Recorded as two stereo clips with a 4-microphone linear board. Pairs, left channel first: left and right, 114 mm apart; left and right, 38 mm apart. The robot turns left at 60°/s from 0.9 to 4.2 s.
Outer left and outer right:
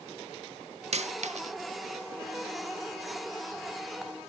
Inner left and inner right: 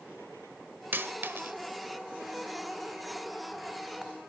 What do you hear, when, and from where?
0.9 s a dropped coin: 70° right (ahead or behind), 0.8 m